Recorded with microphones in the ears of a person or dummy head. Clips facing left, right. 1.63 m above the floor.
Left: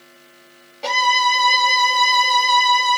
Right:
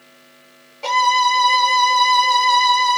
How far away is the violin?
About 0.7 m.